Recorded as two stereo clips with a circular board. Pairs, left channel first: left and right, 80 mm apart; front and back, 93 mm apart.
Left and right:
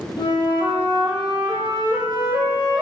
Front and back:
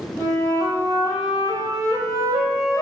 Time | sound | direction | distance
0.2 | a flute | 65° left | 4 m